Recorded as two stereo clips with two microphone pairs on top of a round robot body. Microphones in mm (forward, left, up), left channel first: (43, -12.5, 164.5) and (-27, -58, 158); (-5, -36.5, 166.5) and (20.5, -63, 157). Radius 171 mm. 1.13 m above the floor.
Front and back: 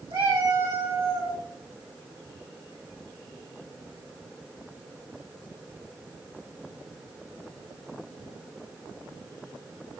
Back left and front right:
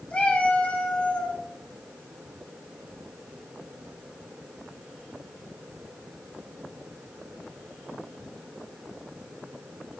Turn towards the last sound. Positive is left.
turn(degrees=-175)